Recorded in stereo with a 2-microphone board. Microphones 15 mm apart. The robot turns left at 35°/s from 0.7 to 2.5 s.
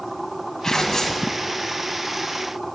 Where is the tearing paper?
45° left (ahead or behind), 1.2 m; by 1.3 s 35° left (ahead or behind), 1.2 m.